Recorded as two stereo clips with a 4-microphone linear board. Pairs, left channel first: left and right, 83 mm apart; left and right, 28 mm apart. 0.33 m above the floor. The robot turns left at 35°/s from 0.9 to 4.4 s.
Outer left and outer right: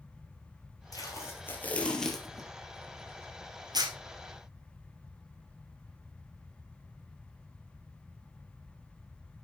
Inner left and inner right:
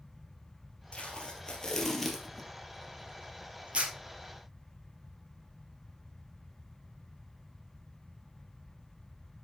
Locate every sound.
0.9 s tape being pulled: 45° left (ahead or behind), 2.5 m; by 3.9 s 60° right (ahead or behind), 2.5 m